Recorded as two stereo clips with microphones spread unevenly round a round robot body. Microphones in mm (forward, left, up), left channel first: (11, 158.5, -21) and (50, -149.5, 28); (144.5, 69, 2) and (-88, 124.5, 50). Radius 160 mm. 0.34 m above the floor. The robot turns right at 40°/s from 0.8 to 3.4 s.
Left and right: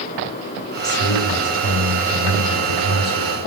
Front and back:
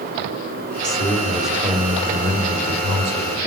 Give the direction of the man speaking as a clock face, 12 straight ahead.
10 o'clock.